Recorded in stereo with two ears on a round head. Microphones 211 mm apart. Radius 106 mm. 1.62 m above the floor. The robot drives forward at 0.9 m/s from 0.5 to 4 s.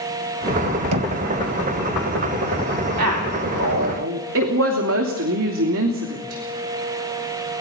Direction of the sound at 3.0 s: 75° right (ahead or behind).